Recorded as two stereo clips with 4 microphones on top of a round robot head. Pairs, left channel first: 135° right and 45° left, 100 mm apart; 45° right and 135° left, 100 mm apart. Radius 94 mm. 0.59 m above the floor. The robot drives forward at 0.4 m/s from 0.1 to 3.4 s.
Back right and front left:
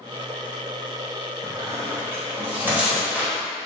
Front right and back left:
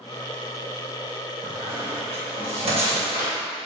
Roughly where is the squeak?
Left.